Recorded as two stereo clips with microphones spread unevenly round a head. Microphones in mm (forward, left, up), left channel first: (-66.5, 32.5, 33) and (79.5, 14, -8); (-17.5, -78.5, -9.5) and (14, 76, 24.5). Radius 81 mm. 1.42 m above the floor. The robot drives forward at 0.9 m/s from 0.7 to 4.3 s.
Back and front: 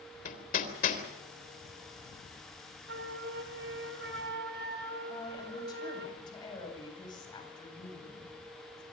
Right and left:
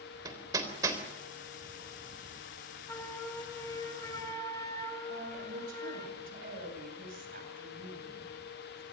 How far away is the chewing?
I don't hear chewing.